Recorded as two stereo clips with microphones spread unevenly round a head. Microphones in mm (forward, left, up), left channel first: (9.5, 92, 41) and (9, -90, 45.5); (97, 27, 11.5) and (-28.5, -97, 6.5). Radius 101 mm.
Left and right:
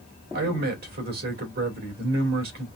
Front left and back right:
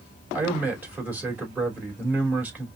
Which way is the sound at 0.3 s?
55° right.